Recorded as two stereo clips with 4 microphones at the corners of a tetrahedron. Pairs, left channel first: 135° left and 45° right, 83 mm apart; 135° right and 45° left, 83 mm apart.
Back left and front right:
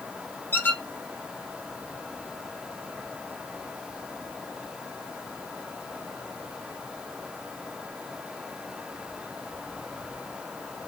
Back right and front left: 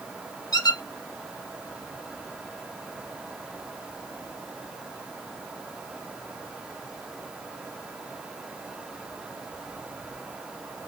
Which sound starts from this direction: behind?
A squeak, at 0.5 s.